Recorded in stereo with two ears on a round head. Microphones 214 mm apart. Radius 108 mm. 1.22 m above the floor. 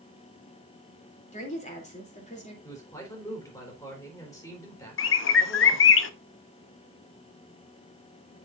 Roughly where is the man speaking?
Centre.